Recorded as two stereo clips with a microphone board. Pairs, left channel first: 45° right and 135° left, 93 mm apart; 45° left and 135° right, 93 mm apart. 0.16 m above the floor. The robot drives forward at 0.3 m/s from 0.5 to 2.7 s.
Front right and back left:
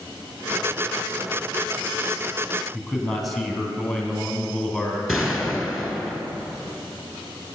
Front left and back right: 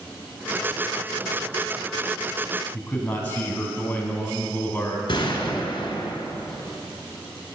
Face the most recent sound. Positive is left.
turn(degrees=50)